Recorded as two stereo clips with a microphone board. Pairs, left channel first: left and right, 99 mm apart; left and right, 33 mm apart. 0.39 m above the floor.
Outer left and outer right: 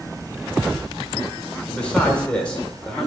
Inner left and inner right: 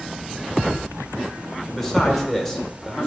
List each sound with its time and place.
1.7 s a man speaking: 10° left (ahead or behind), 1.3 m